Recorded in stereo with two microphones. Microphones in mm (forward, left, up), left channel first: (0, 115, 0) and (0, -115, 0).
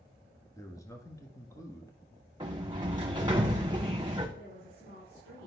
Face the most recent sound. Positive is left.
turn(degrees=65)  # may be behind; listen again after turning